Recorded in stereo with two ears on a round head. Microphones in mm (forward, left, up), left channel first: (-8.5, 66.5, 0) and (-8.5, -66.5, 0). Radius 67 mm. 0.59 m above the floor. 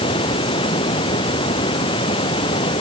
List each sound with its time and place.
0.0 s running water: 35° left (ahead or behind)